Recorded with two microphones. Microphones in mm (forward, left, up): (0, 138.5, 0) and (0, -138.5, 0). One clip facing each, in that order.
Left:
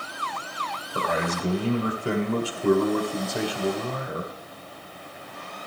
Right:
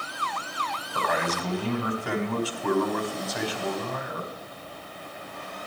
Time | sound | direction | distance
0.9 | a man speaking | 30° left (ahead or behind) | 1.9 m